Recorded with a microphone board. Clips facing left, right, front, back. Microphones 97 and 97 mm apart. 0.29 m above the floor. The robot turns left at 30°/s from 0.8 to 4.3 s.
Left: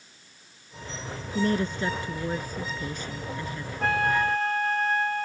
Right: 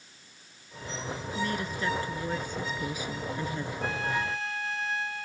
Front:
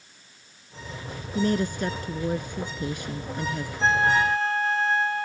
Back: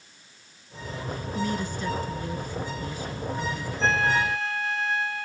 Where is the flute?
65° left; by 5.3 s 50° left.